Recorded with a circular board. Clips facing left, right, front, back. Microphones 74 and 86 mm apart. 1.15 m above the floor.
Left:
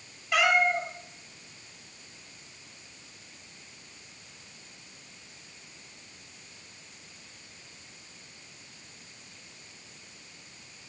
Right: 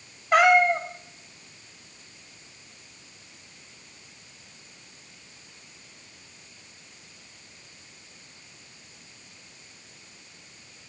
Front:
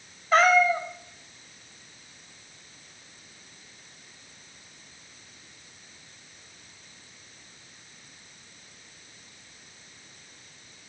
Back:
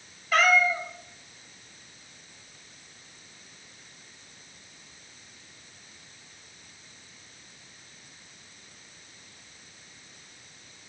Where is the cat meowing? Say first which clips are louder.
Right 6 dB, front 3 dB; 50° right, 1.1 m.